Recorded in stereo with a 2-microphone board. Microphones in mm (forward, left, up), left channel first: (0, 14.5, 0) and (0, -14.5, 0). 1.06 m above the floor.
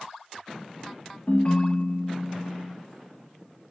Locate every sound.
1.3 s a ringtone: 40° left (ahead or behind), 0.5 m